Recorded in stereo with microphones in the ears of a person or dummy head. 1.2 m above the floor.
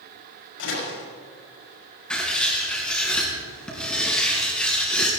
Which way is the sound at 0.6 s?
80° left.